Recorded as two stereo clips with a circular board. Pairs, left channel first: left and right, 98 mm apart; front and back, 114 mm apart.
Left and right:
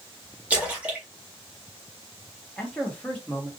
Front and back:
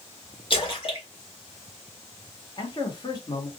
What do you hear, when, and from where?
0.5 s a splash: 20° right, 1.9 m
2.6 s a man speaking: 15° left, 1.4 m